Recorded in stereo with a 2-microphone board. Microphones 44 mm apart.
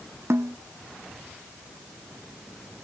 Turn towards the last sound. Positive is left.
turn(degrees=-80)